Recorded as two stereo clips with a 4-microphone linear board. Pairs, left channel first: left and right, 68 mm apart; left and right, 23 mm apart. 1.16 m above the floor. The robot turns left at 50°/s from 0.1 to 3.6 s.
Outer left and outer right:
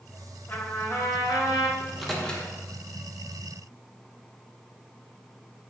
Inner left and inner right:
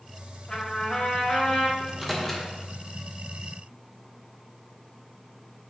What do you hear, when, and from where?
0.5 s a trumpet: 155° left, 1.8 m; by 1.7 s 90° left, 1.8 m
1.8 s a microwave: 15° right (ahead or behind), 1.1 m; by 2.5 s 20° left (ahead or behind), 1.1 m